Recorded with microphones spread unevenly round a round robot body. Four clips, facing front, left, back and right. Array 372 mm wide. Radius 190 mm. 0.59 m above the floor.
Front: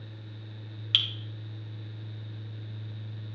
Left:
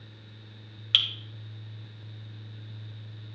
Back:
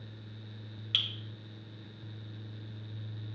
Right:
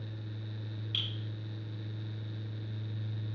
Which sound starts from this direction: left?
Dripping, at 0.9 s.